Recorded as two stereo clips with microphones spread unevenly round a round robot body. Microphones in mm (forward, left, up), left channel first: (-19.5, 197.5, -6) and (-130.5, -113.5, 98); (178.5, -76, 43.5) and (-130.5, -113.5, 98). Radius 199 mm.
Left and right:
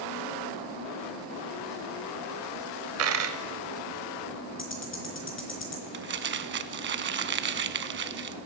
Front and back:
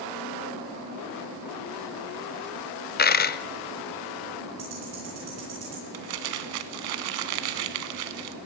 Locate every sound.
3.0 s a dropped coin: 50° right, 0.5 m
4.6 s ticking: 120° left, 3.5 m
5.9 s crumpling: 170° right, 0.7 m